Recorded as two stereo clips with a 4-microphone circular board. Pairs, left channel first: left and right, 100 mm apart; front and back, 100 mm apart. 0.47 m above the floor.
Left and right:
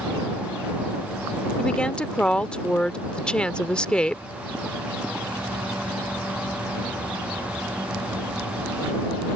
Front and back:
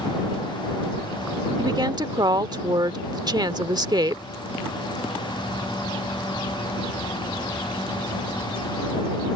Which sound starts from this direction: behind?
A woman speaking, at 1.6 s.